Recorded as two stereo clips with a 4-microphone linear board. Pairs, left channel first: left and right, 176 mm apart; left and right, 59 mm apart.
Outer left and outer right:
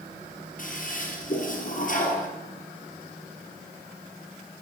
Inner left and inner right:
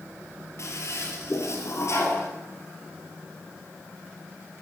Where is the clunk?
No clunk in this recording.